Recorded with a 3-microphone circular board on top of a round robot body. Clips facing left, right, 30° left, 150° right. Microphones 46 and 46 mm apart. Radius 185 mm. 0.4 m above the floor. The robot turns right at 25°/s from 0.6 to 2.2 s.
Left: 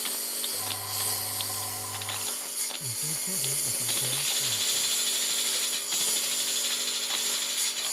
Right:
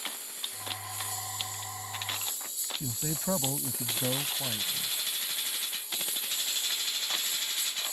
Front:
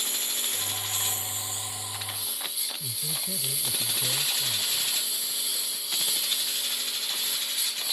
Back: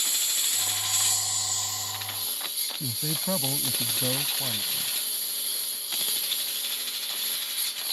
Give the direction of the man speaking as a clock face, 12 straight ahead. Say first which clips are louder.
Right 4 dB, back 4 dB; 4 o'clock.